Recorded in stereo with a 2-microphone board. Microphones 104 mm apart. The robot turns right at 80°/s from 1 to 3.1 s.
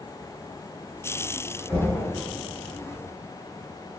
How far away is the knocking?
About 1.8 m.